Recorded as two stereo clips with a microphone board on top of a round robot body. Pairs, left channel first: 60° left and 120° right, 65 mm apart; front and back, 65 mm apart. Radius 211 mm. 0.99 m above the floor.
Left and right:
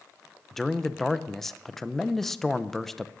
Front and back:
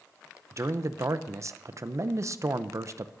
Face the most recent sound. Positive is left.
turn(degrees=145)